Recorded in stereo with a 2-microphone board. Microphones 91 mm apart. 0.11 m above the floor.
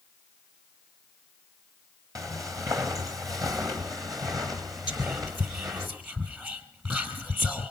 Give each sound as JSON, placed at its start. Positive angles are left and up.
{"t": 2.1, "sound": "footsteps", "side_deg": -35, "distance_m": 3.5}
{"t": 4.9, "sound": "whispering", "side_deg": -20, "distance_m": 3.0}